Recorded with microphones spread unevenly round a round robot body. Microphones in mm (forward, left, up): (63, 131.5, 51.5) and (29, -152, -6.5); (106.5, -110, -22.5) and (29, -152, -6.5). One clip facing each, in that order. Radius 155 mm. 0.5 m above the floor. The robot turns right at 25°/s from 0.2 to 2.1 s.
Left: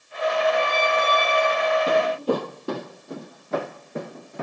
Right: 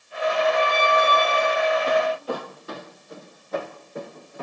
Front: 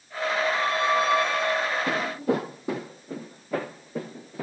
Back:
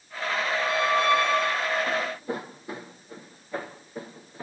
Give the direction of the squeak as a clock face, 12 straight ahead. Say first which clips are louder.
Right 1 dB, back 2 dB; 8 o'clock.